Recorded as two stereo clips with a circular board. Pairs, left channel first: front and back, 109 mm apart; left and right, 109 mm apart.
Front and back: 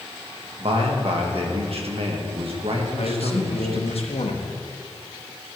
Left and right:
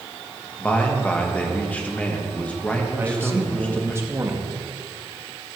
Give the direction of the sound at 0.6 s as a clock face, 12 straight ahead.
6 o'clock.